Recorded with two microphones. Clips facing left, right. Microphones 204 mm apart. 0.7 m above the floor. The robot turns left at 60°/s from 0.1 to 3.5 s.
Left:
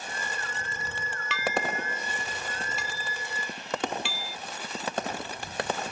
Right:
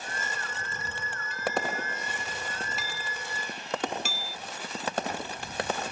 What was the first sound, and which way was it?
Dishes clattering, 90° left.